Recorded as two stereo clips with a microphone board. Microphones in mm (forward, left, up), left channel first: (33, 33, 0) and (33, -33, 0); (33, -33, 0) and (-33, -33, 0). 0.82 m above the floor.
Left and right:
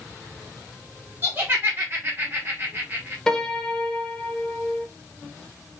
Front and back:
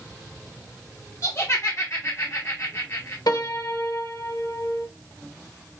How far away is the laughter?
About 0.9 m.